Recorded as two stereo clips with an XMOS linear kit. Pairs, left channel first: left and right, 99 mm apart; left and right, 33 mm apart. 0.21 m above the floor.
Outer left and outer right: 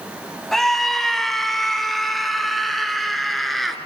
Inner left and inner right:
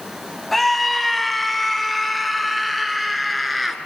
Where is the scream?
5° left (ahead or behind), 1.7 m; by 3.8 s centre (ahead or behind), 3.5 m.